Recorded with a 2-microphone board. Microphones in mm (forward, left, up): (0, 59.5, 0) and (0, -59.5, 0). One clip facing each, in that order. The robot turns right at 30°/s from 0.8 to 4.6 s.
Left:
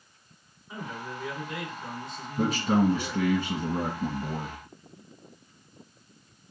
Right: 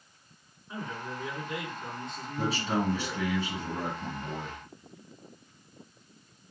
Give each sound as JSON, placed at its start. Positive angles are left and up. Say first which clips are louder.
{"t": 0.7, "sound": "a man speaking", "louder": "even", "azimuth_deg": 165, "distance_m": 3.0}
{"t": 2.4, "sound": "a man speaking", "louder": "left 6 dB", "azimuth_deg": 65, "distance_m": 1.7}